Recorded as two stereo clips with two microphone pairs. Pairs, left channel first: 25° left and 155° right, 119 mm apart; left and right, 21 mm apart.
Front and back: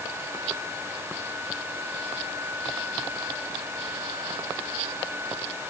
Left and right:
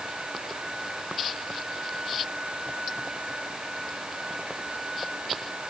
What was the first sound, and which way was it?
Only background noise.